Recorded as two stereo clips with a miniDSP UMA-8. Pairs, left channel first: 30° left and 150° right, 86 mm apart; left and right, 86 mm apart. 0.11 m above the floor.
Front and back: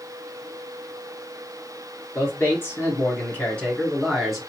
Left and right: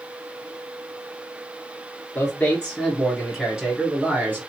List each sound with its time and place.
2.1 s a man speaking: 35° left, 1.7 m; by 4.4 s 65° right, 1.5 m